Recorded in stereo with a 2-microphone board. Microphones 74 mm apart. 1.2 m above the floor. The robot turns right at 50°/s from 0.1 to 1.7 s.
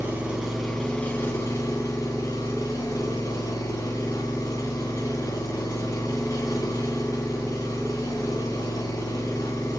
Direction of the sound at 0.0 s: 25° right.